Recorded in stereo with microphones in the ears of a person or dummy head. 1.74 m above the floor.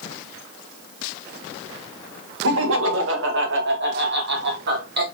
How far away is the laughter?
About 1.8 m.